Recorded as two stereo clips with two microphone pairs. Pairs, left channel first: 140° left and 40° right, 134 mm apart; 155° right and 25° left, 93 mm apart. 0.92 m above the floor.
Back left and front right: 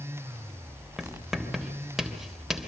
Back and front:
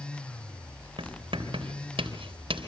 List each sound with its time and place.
1.0 s writing: 50° left, 3 m